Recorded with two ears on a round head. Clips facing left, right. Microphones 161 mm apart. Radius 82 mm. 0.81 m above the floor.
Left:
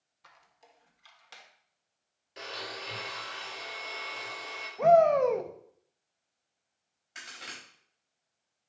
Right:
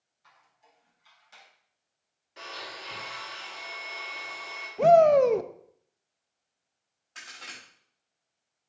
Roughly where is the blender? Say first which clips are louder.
Left 2 dB; left.